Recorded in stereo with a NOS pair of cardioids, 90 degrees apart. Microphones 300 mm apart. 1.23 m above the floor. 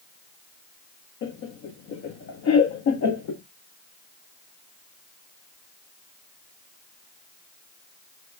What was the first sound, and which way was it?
Laughter, 60° left.